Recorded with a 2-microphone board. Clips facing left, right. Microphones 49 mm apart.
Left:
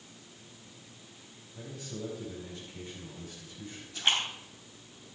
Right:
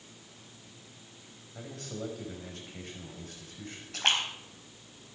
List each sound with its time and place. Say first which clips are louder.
1.6 s a man speaking: right 1 dB; 60° right (ahead or behind), 4.5 m
3.9 s a splash: right 1 dB; 75° right (ahead or behind), 4.5 m